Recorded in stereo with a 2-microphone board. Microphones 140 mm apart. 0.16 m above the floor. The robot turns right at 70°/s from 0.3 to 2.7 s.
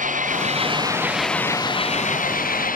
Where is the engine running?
65° right; by 2.8 s 105° left.